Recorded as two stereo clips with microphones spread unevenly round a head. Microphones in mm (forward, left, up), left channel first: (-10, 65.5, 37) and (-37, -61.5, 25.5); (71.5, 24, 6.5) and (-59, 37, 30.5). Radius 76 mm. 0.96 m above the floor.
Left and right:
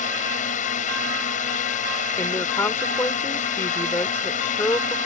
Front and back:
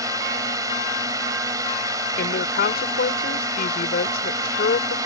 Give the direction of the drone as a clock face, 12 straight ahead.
8 o'clock.